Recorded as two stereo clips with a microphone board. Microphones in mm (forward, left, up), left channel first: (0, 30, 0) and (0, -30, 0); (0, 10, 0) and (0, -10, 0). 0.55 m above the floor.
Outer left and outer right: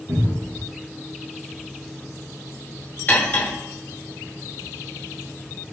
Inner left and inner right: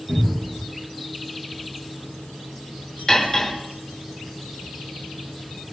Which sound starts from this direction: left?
Cutlery clinking, at 3.1 s.